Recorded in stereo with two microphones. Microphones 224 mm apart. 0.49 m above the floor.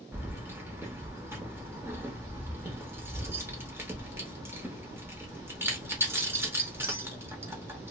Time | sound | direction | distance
0.1 | keys jangling | 10° right (ahead or behind) | 0.8 m